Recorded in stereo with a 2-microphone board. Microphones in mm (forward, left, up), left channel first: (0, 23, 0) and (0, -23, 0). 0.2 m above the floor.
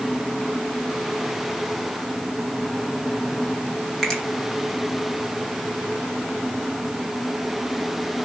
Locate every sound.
4.0 s a finger snap: 10° left (ahead or behind), 2.5 m